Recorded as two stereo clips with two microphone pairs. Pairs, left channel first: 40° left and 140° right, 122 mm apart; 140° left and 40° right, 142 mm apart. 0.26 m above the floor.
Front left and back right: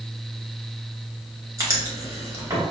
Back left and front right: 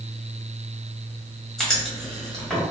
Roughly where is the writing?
Behind right.